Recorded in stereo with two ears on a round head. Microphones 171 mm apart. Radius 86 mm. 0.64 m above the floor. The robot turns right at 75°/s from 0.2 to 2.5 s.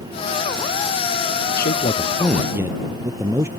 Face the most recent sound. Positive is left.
turn(degrees=-165)